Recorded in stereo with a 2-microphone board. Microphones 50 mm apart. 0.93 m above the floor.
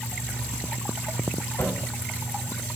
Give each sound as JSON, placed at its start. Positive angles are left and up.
{"t": 1.6, "sound": "a cupboard door", "side_deg": 85, "distance_m": 2.5}